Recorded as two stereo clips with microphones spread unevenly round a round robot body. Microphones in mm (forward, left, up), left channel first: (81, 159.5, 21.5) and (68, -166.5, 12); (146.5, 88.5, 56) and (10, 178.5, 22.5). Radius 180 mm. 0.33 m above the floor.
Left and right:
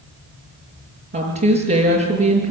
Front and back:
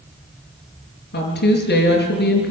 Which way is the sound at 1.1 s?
30° right.